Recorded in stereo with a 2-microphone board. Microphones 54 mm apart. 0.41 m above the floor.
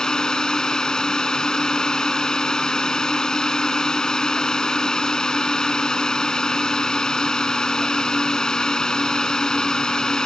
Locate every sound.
0.0 s a drone: 10° left (ahead or behind)